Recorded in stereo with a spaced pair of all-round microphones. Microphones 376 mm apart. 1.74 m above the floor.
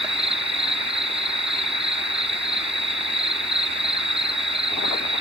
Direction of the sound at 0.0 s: 15° right (ahead or behind).